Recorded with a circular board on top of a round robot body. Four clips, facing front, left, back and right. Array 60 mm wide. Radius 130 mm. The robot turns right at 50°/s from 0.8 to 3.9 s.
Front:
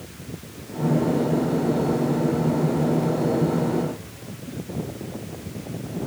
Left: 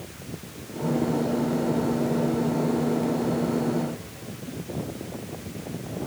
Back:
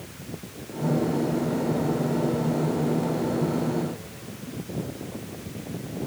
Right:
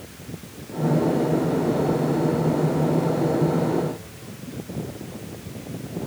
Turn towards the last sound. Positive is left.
No sound to turn to.